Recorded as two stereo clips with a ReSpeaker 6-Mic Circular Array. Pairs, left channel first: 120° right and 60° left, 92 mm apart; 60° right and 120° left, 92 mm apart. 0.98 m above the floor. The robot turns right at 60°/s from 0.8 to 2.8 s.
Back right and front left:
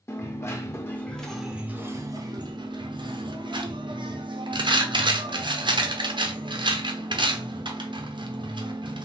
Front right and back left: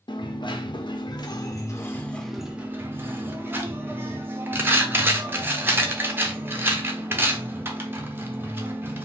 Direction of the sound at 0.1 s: 65° right.